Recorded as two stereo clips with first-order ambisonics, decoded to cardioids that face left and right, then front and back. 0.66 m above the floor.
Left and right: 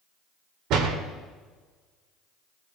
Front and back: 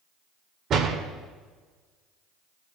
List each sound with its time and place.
0.7 s a door slam: 125° right, 1.4 m